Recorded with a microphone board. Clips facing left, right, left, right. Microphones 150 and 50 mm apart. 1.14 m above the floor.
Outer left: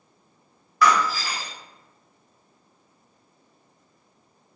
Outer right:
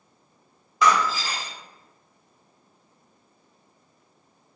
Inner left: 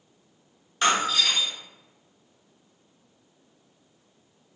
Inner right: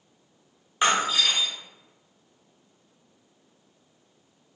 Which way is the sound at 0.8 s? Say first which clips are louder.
Even, even; 20° right (ahead or behind).